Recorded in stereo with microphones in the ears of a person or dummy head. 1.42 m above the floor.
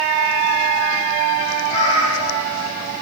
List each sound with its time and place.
1.7 s a cat meowing: 35° left (ahead or behind), 9 m